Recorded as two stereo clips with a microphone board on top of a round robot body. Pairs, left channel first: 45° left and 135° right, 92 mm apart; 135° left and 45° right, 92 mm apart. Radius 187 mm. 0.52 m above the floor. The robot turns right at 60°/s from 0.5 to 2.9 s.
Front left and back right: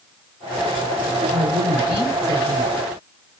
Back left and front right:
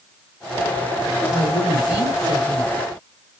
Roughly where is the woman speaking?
Behind right.